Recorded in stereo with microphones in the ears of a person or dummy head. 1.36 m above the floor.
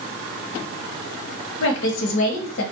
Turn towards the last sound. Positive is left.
turn(degrees=70)  # may be behind; listen again after turning